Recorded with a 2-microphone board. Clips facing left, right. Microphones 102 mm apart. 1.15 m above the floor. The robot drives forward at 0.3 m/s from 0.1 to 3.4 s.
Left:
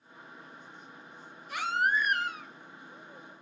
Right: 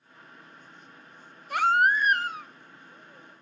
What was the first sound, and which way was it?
A baby crying, 55° right (ahead or behind).